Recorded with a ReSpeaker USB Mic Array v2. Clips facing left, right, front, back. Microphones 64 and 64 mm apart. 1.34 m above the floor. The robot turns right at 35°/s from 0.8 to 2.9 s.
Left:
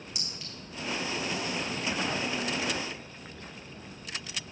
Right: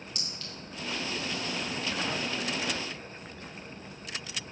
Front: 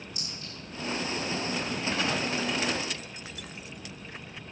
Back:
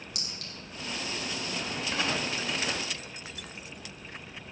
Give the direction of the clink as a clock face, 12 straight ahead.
6 o'clock.